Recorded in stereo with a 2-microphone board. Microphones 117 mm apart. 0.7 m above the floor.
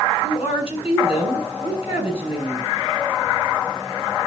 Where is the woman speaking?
55° left (ahead or behind), 8 m.